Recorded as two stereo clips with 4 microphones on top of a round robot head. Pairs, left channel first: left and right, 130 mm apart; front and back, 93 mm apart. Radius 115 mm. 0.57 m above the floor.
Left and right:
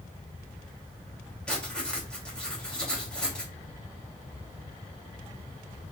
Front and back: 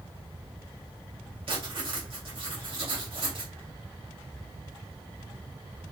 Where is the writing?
170° left, 2.5 m.